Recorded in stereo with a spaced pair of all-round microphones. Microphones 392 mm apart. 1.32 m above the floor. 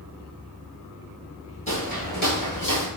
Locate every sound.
1.7 s footsteps: 20° left (ahead or behind), 1.4 m; by 2.9 s 35° left (ahead or behind), 1.5 m